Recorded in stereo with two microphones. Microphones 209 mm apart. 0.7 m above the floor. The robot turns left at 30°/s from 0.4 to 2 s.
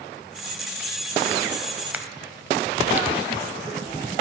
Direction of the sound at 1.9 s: 10° right (ahead or behind).